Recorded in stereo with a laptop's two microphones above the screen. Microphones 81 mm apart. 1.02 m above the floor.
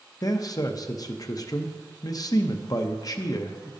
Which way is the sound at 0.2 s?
50° left (ahead or behind).